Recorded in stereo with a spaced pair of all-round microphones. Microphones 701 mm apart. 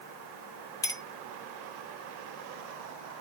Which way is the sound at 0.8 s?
5° left (ahead or behind).